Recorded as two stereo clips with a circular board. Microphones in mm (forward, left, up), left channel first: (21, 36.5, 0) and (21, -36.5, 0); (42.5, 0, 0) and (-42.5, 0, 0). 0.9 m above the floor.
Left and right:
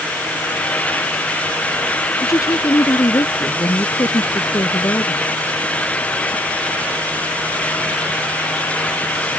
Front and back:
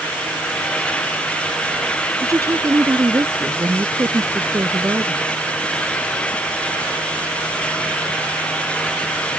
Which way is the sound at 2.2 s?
130° left.